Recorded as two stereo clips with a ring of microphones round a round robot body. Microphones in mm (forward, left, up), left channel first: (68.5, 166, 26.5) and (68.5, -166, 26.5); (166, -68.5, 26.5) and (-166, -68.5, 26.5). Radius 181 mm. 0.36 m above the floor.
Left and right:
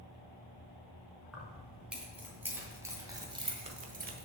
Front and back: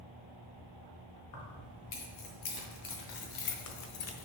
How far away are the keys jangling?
About 3 m.